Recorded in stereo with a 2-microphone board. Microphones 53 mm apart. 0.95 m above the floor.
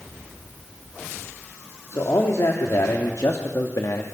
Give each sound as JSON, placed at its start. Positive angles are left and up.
{"t": 1.9, "sound": "a man speaking", "side_deg": 75, "distance_m": 3.0}